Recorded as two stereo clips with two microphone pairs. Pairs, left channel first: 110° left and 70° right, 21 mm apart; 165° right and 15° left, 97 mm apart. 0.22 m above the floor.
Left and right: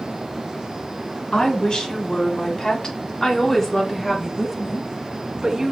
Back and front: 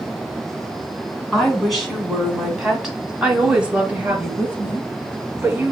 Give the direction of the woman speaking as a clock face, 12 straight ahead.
9 o'clock.